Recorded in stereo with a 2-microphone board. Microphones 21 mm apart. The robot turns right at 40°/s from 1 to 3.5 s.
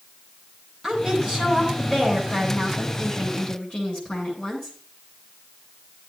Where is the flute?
No flute in this recording.